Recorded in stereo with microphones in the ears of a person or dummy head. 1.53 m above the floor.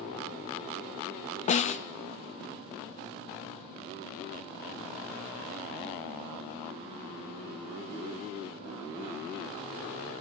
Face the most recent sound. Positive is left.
turn(degrees=45)  # may be behind; listen again after turning